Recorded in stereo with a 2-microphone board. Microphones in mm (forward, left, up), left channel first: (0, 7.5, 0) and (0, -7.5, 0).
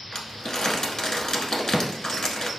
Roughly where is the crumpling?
Left.